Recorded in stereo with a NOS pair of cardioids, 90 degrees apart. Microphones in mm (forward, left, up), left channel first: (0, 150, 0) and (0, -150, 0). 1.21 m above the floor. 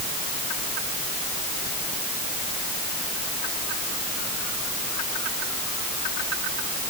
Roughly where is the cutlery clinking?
No cutlery clinking in this recording.